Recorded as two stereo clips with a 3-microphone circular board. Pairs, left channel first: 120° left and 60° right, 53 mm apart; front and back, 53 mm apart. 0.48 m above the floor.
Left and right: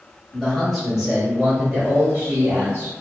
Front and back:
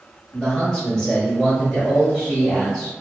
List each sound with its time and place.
0.3 s a man speaking: 55° left, 1.1 m; by 2.9 s 85° right, 1.5 m